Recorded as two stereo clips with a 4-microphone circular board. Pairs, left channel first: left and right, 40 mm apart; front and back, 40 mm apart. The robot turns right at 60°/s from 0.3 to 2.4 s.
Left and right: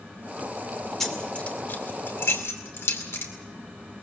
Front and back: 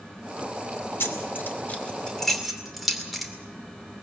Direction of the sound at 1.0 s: 5° left.